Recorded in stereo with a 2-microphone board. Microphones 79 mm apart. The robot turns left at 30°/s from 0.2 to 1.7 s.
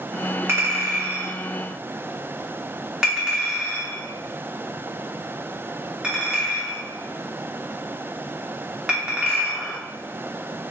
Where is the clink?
30° right (ahead or behind), 0.9 m; by 9.8 s 10° right (ahead or behind), 0.9 m.